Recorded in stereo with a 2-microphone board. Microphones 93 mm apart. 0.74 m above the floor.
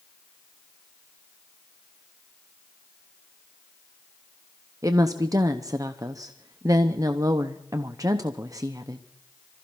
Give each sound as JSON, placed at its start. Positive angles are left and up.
{"t": 4.8, "sound": "a woman speaking", "side_deg": -35, "distance_m": 0.7}